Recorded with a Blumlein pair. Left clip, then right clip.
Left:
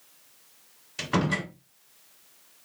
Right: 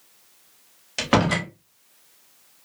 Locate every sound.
1.0 s a door slam: 45° right, 3 m